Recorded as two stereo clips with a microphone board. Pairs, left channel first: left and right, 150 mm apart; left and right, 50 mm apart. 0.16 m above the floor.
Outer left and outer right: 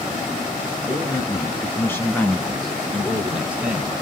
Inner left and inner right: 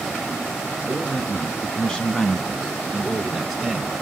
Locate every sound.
0.9 s a man speaking: 25° left (ahead or behind), 1.6 m; by 3.9 s 10° right (ahead or behind), 1.5 m